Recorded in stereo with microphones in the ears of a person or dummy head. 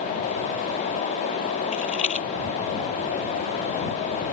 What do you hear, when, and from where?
1.7 s a rattle: 45° left (ahead or behind)